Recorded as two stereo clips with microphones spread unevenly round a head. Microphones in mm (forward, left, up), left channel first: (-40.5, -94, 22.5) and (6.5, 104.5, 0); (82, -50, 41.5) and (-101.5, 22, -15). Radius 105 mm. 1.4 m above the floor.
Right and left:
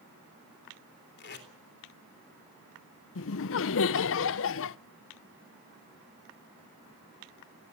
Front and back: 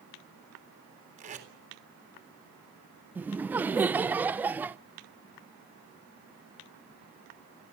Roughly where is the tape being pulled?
Behind right.